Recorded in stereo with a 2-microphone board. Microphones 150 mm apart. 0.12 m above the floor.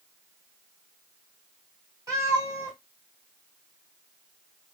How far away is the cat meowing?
About 2 m.